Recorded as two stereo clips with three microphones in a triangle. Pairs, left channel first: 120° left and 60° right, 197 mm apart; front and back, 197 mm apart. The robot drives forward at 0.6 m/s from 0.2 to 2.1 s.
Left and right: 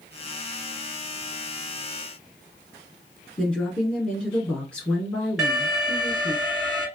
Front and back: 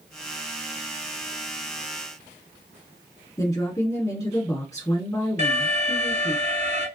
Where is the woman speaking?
45° left, 1.3 m.